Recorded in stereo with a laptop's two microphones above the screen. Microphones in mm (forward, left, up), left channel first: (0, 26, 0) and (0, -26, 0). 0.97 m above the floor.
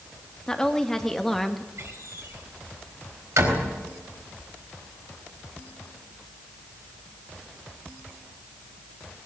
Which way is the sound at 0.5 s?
15° left (ahead or behind).